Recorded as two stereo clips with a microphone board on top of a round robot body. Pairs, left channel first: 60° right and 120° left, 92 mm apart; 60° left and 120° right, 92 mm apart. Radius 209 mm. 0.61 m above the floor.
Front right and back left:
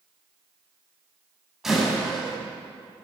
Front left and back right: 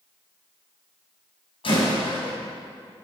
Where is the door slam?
35° left, 4.5 m.